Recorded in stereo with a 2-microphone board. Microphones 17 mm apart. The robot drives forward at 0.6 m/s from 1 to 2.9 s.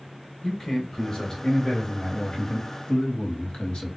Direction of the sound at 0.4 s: 35° left (ahead or behind).